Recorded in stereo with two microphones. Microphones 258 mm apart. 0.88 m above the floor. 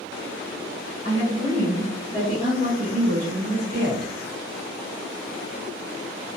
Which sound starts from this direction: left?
A woman speaking, at 1.0 s.